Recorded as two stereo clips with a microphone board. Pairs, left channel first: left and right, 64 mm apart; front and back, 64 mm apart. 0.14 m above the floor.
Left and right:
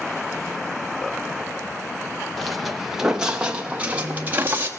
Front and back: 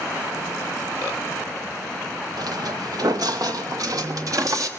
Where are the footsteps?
Straight behind, 2.5 m; by 4.7 s 145° right, 3 m.